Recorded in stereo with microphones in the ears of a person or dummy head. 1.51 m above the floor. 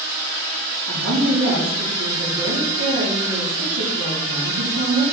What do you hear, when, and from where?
0.9 s a woman speaking: 85° right, 4 m